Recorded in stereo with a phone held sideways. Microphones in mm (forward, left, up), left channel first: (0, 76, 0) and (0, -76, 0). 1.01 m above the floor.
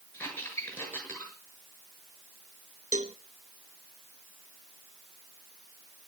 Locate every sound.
0.1 s a squeak: 15° left (ahead or behind), 6.5 m
2.9 s a cowbell: 50° right (ahead or behind), 1.0 m